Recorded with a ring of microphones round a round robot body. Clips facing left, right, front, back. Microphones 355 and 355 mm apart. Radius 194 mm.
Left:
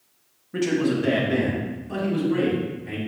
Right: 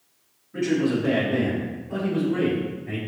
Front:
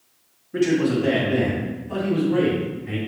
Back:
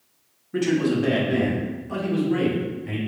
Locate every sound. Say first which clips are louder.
0.5 s a man speaking: even, front 2 dB; 120° left, 1.9 m; by 3.0 s 145° left, 3.5 m